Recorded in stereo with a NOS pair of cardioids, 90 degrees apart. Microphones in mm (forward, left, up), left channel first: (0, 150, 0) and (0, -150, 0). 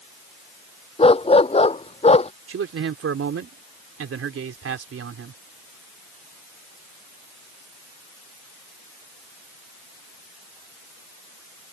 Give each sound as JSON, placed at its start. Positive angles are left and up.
{"t": 1.0, "sound": "a dog barking", "azimuth_deg": 20}
{"t": 2.5, "sound": "a man speaking", "azimuth_deg": -50}